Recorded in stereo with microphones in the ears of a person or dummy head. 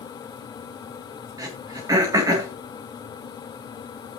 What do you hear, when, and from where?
1.4 s throat clearing: 20° right (ahead or behind), 3.5 m